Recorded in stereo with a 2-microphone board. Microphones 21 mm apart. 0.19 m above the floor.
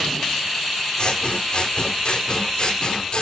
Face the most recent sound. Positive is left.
turn(degrees=45)  # may be behind; listen again after turning